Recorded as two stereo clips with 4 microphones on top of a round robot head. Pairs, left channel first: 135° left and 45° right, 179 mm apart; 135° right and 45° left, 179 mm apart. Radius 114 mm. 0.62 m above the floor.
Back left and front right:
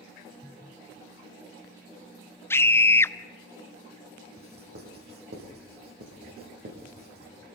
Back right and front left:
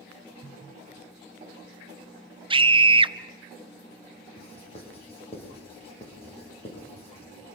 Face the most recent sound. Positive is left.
turn(degrees=-75)